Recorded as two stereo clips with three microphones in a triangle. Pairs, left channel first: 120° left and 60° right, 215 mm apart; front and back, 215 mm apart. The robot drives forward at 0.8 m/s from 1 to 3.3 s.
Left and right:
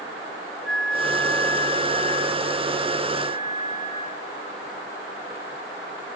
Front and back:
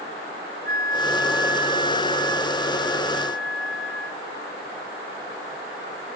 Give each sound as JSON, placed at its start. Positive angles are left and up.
{"t": 0.7, "sound": "a flute", "azimuth_deg": 40, "distance_m": 0.8}